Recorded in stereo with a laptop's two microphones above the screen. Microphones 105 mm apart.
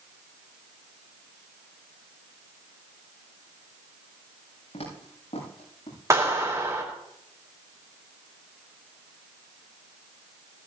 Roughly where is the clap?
Right.